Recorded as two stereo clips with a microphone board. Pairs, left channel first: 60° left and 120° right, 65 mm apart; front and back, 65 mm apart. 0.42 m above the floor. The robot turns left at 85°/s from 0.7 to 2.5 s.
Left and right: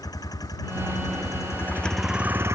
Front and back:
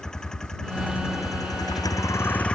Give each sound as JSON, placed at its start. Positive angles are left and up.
{"t": 0.0, "sound": "a vehicle", "azimuth_deg": 80}